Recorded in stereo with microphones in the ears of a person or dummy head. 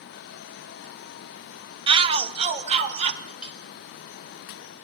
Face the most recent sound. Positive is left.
turn(degrees=0)  # may be behind; listen again after turning